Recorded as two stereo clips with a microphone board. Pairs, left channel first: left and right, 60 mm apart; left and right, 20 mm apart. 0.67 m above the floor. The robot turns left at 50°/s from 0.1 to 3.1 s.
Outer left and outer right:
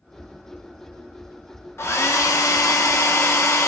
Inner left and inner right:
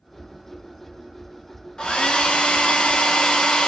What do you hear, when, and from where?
1.8 s a hair dryer: 125° left, 0.6 m; by 3.7 s 60° left, 0.6 m